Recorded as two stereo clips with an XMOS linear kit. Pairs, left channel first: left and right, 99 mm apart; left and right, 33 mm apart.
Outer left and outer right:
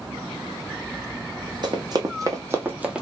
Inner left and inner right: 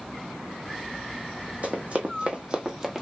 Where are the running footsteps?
45° right (ahead or behind), 1.1 m; by 3.0 s 5° right (ahead or behind), 0.6 m.